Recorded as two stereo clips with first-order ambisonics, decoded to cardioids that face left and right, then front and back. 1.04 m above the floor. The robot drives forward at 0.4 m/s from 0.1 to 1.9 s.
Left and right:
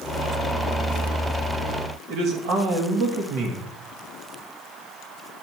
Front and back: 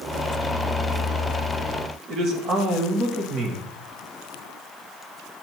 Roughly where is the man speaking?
Behind right.